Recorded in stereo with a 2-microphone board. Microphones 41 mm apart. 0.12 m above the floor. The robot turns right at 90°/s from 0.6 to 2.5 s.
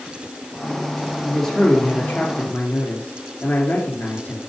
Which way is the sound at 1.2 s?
10° right.